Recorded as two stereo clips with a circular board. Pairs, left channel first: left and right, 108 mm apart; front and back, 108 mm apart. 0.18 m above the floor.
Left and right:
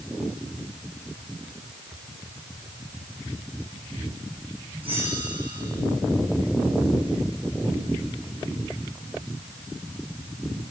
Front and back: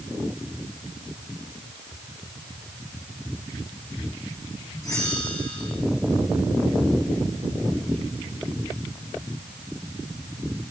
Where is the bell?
60° right, 8 m.